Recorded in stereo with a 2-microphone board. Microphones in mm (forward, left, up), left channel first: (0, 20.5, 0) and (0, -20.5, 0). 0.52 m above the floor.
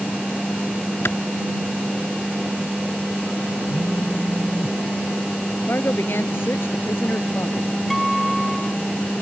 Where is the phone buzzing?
80° left.